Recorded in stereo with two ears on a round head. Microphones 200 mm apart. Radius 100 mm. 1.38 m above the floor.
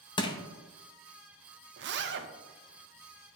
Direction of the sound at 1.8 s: 55° right (ahead or behind).